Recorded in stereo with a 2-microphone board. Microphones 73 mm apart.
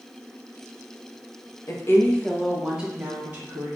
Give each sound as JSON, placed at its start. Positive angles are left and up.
{"t": 1.7, "sound": "a woman speaking", "side_deg": 45, "distance_m": 0.6}